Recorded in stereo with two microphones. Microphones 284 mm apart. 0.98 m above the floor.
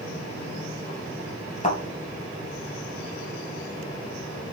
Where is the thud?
30° left (ahead or behind), 2.5 m.